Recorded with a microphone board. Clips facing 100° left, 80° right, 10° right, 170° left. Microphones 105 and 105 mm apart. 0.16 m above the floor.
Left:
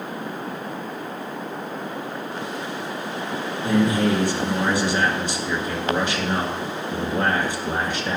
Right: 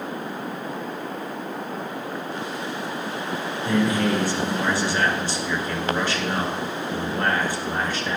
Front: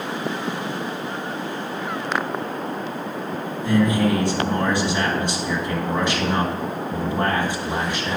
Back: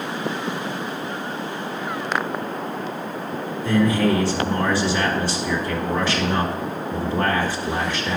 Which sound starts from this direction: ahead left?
A man speaking, at 3.6 s.